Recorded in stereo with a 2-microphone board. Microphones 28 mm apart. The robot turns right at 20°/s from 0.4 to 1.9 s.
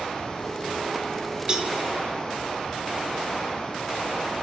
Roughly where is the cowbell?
Right.